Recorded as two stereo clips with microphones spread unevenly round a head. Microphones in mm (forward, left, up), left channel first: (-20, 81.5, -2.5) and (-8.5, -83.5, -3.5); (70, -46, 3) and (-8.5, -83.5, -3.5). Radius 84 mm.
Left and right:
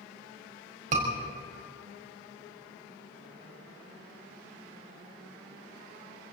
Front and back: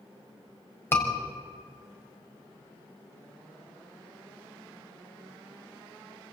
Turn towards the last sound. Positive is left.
turn(degrees=-35)